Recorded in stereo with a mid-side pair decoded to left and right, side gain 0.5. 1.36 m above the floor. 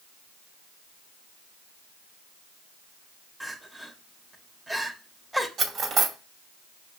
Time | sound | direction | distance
3.4 | crying | 10° right | 1.5 m
5.6 | cutlery clinking | 60° right | 2 m